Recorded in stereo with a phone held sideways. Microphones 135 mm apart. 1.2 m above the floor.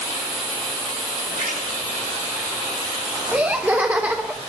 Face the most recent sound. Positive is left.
turn(degrees=-10)  # may be behind; listen again after turning